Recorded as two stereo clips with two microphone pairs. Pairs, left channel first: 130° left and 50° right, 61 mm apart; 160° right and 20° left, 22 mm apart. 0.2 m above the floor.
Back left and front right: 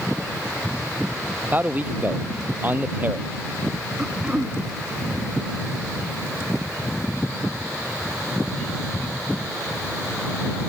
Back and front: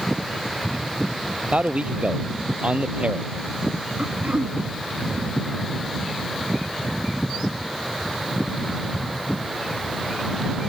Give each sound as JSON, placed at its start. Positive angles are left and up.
{"t": 1.4, "sound": "a man speaking", "azimuth_deg": 10}
{"t": 4.0, "sound": "throat clearing", "azimuth_deg": 20}